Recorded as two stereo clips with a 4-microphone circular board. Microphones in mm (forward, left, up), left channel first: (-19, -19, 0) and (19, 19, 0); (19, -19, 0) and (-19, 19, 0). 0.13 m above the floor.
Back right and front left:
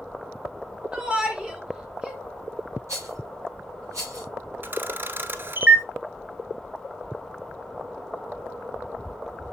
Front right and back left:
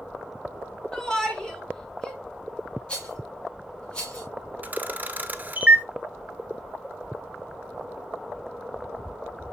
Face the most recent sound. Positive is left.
turn(degrees=85)